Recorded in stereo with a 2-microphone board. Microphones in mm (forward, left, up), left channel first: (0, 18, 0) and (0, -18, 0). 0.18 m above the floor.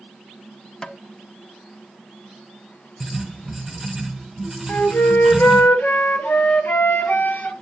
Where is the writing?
5° right (ahead or behind), 1.2 m.